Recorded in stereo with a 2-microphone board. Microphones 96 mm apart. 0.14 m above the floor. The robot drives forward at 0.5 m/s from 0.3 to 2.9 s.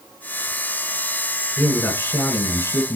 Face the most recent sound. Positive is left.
turn(degrees=30)  # may be behind; listen again after turning